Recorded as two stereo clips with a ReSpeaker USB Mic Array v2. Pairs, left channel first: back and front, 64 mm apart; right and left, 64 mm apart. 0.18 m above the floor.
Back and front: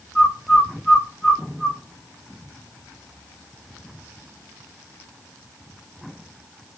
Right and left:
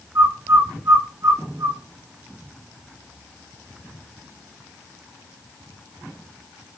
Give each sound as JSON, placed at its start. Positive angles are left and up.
{"t": 0.1, "sound": "a bird", "azimuth_deg": 90, "distance_m": 2.0}